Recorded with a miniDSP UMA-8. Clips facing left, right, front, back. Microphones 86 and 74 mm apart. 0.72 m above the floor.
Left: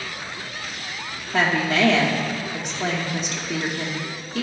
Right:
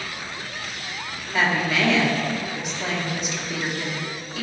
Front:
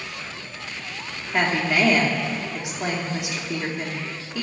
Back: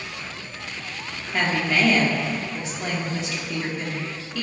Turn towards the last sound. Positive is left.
turn(degrees=70)